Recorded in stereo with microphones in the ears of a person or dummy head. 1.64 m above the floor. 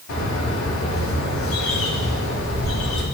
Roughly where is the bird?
Left.